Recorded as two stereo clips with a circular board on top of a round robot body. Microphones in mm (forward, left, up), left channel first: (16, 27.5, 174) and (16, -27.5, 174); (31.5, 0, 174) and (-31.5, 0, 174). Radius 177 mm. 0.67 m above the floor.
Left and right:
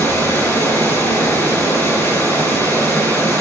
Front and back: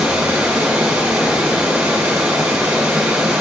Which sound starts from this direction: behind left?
Running water, at 0.0 s.